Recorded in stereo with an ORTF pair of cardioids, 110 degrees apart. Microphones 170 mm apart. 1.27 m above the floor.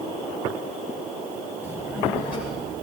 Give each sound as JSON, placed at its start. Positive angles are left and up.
{"t": 1.6, "sound": "a child speaking", "azimuth_deg": -15, "distance_m": 3.5}